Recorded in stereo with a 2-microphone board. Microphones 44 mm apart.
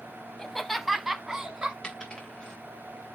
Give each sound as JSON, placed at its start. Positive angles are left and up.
{"t": 0.4, "sound": "laughter", "side_deg": 15, "distance_m": 1.0}
{"t": 1.8, "sound": "a dropped coin", "side_deg": 15, "distance_m": 4.5}